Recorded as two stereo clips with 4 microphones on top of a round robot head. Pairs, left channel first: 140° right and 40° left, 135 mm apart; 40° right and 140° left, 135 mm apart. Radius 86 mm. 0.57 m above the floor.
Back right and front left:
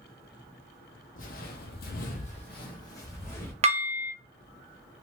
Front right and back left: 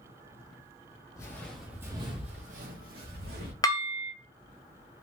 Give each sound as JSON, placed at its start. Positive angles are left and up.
{"t": 1.2, "sound": "footsteps", "azimuth_deg": -110, "distance_m": 1.2}
{"t": 3.6, "sound": "dishes clattering", "azimuth_deg": 15, "distance_m": 0.9}